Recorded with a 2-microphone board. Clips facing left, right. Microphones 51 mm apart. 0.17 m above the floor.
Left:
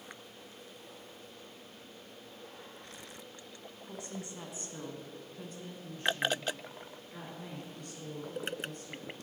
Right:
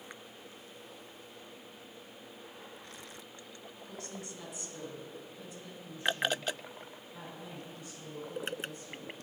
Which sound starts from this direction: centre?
A woman speaking, at 3.9 s.